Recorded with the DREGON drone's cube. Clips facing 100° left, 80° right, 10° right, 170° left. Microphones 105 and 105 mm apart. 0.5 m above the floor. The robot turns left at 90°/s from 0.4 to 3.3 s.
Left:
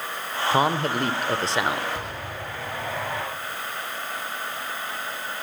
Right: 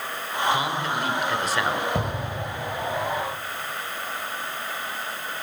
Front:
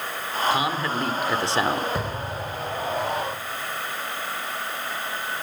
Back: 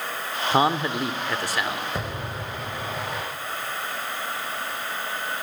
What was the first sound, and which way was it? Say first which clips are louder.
A man speaking: left 8 dB, back 7 dB; 135° left.